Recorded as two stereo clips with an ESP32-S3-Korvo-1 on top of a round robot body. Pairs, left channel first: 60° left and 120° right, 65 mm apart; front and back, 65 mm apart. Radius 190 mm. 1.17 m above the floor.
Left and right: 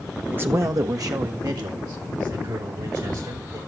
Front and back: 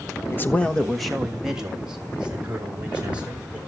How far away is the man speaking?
About 0.9 m.